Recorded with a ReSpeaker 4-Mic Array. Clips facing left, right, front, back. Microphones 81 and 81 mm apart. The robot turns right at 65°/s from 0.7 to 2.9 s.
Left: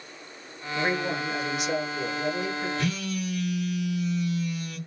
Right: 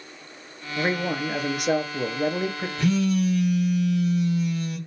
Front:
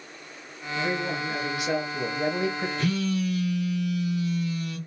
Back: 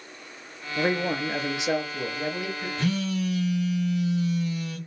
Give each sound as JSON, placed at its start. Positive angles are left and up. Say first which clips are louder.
{"t": 0.8, "sound": "a man speaking", "louder": "right 2 dB, back 3 dB", "azimuth_deg": -165, "distance_m": 0.6}
{"t": 2.8, "sound": "a phone buzzing", "louder": "right 8 dB, back 1 dB", "azimuth_deg": -155, "distance_m": 1.5}